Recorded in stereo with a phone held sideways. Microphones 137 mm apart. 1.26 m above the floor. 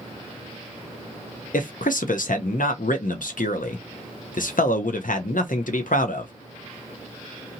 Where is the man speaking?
80° left, 0.6 m.